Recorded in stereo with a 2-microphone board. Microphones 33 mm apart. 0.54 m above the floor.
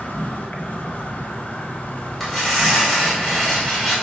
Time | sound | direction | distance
0.0 | an insect | 65° left (ahead or behind) | 0.7 m
2.2 | tearing paper | centre (ahead or behind) | 1.6 m